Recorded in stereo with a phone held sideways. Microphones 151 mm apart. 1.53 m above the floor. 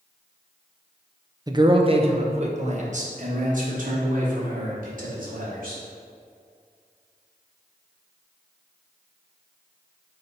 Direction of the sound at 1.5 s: 25° right (ahead or behind).